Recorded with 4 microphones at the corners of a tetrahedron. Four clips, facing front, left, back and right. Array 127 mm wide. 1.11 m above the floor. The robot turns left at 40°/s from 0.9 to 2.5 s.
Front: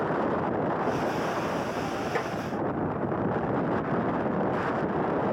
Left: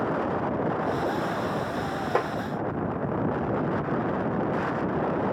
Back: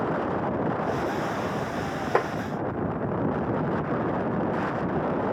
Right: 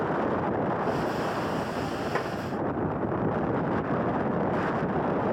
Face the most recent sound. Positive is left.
turn(degrees=150)